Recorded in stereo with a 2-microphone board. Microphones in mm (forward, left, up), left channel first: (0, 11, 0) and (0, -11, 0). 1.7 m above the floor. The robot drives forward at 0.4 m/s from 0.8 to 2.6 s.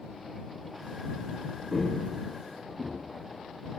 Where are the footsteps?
5° right (ahead or behind), 3 m.